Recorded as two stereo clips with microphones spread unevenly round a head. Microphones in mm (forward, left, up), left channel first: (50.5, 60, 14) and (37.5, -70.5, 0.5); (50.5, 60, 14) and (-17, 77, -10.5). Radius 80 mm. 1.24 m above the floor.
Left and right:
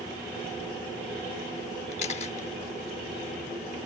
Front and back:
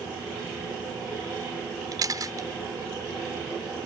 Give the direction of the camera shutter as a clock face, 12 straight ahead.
8 o'clock.